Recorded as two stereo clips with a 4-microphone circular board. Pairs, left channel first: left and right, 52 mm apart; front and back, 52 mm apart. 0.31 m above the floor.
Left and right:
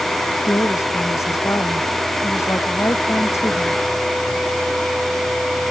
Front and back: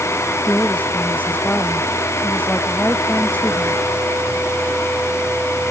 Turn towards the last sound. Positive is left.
turn(degrees=60)